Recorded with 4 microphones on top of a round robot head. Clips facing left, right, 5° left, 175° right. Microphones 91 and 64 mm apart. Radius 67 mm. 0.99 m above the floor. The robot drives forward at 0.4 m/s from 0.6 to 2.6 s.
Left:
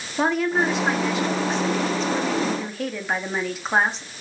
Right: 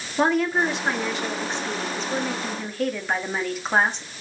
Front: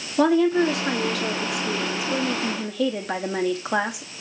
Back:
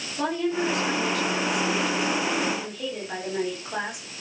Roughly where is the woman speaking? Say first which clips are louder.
Even, front 8 dB; ahead.